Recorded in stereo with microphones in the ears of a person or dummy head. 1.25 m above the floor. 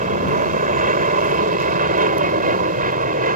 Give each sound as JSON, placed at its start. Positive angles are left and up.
{"t": 0.0, "sound": "an aircraft", "side_deg": -35}